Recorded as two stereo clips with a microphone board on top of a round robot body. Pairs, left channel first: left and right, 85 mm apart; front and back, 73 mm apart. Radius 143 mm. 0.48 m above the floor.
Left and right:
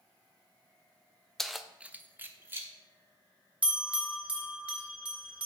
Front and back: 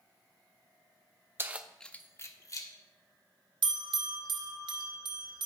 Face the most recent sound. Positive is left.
turn(degrees=-165)